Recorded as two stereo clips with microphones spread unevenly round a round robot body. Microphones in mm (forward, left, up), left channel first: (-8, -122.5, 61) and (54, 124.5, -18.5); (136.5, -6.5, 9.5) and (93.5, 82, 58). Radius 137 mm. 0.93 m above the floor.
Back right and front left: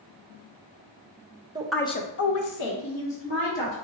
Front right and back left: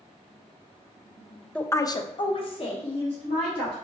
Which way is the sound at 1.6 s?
5° left.